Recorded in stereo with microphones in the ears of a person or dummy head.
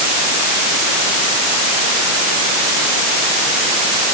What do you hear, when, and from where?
Only background noise.